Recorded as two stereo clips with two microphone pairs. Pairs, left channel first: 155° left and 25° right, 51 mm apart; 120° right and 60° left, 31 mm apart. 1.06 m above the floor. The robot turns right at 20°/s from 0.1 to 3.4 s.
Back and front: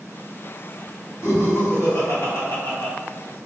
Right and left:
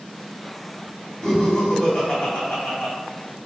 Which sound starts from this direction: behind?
Laughter, at 1.2 s.